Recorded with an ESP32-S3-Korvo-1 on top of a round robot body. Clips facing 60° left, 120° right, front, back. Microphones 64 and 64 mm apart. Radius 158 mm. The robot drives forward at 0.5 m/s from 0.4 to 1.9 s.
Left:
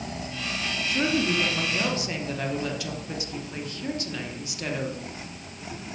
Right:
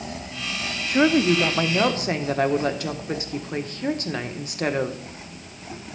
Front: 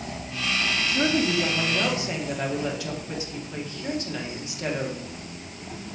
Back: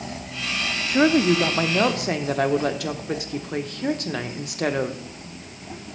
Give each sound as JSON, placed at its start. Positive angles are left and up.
{"t": 0.9, "sound": "a woman speaking", "azimuth_deg": -150, "distance_m": 1.1}